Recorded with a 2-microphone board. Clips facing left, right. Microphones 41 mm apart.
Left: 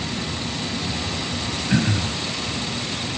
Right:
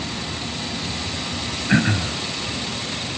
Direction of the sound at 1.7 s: 35° right (ahead or behind).